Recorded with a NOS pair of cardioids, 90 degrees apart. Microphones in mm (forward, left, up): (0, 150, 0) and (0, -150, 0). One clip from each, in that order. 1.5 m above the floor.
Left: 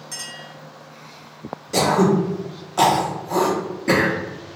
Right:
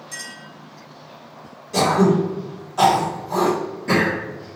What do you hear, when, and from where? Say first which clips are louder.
0.1 s a clink: left 1 dB; 15° left, 1.6 m
1.7 s throat clearing: even; 40° left, 1.2 m